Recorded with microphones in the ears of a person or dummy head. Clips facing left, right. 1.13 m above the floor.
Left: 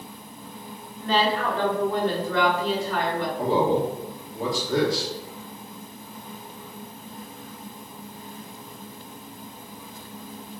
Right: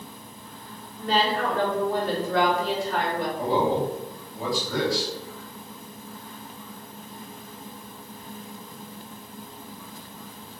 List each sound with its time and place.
1.0 s a woman speaking: 20° right (ahead or behind), 1.4 m
3.4 s a man speaking: 20° left (ahead or behind), 1.3 m